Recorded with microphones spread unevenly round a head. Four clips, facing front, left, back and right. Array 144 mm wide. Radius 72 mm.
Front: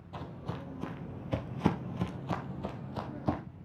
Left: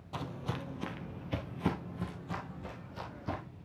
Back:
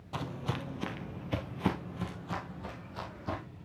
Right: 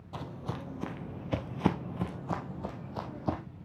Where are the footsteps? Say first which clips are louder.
Even, back 4 dB; 105° left, 1.2 m; by 3.4 s 50° right, 1.8 m.